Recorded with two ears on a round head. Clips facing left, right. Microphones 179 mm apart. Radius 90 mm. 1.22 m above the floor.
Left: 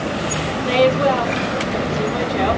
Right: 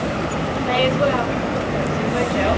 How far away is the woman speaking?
About 4 m.